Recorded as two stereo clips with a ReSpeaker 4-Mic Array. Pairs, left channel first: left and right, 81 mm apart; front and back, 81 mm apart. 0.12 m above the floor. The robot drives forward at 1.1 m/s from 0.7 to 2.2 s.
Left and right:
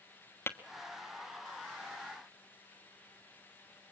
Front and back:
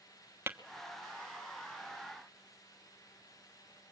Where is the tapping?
135° left, 1.3 m.